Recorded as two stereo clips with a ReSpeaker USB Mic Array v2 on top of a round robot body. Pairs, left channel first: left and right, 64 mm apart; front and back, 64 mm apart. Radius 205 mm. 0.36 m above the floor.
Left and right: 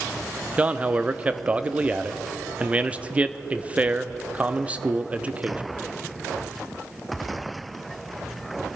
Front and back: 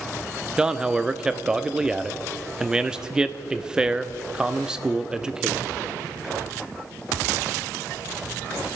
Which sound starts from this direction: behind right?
A man speaking, at 0.6 s.